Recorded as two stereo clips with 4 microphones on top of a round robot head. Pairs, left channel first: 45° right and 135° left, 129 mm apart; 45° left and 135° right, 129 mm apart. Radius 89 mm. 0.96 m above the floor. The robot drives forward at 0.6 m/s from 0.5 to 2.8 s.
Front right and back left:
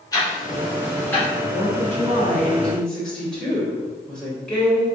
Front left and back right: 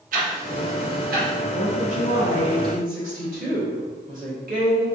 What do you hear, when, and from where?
0.1 s ticking: 110° right, 1.6 m; by 1.3 s 125° right, 1.8 m
1.5 s a woman speaking: 110° right, 1.6 m; by 4.9 s 130° right, 2 m